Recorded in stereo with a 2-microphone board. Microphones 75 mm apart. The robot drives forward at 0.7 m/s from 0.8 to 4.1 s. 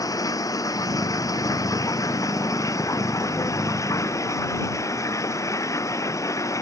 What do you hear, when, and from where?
0.0 s running water: 50° left (ahead or behind); by 6.6 s 45° left (ahead or behind)